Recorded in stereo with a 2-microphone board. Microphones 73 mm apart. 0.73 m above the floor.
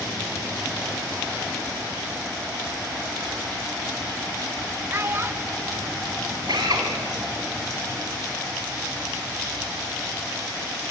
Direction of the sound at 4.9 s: 30° right (ahead or behind).